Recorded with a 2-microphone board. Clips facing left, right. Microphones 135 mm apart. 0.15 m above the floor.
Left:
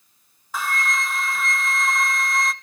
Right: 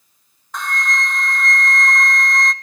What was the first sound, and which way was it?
A flute, 5° left (ahead or behind).